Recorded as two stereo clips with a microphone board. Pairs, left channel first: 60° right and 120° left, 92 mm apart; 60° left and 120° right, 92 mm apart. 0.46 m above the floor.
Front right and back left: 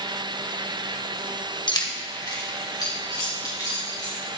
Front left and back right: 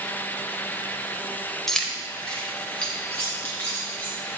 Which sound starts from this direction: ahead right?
Keys jangling, at 1.7 s.